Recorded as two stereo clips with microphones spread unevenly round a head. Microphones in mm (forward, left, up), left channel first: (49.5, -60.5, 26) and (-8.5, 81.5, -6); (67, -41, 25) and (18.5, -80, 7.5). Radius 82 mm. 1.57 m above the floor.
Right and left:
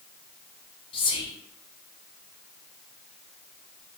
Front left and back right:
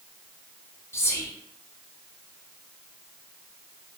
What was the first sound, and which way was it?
Whispering, 10° right.